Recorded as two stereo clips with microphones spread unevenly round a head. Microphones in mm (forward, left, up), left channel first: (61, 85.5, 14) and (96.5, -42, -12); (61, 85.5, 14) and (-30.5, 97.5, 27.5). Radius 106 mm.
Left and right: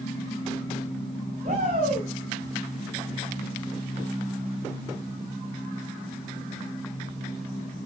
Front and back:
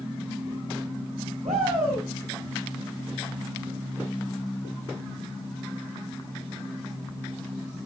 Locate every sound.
1.4 s a shout: 135° right, 6 m